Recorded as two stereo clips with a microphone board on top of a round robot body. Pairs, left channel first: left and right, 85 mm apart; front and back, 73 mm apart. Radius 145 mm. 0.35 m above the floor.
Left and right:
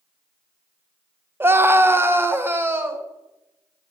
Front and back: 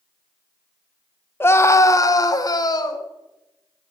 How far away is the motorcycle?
No motorcycle in this recording.